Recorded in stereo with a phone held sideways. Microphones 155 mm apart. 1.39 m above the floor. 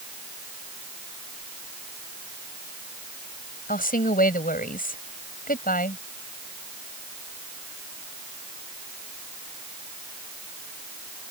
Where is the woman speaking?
60° left (ahead or behind).